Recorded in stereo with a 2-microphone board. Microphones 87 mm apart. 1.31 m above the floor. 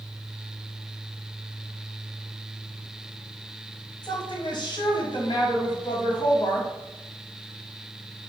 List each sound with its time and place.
4.0 s a woman speaking: 55° left (ahead or behind), 1.0 m